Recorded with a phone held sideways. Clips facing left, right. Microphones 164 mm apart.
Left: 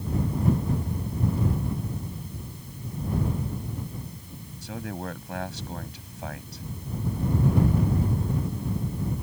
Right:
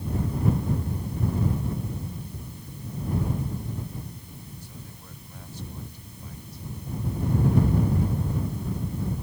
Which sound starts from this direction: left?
A man speaking, at 4.6 s.